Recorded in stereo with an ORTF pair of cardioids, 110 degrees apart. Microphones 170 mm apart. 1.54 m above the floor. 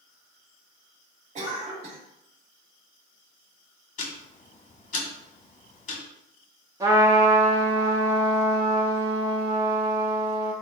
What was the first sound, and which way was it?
A cough, 45° right.